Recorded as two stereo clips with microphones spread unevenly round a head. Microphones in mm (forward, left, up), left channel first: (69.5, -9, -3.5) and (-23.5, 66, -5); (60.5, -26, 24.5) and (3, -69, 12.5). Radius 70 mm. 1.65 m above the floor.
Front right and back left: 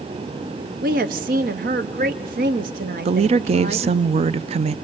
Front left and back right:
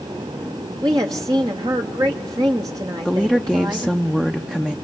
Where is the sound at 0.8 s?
160° left, 1.0 m.